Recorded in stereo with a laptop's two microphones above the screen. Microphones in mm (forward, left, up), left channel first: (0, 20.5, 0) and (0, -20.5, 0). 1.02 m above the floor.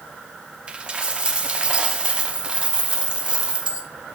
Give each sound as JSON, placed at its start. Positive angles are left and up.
{"t": 0.7, "sound": "a dropped coin", "side_deg": -25, "distance_m": 0.6}